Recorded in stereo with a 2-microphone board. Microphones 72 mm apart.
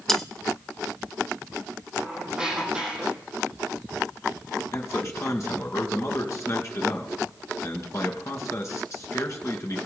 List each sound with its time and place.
0.1 s cutlery clinking: 5° left (ahead or behind), 0.6 m
2.0 s a squeak: 10° right (ahead or behind), 3.5 m
4.7 s a man speaking: 45° left (ahead or behind), 2 m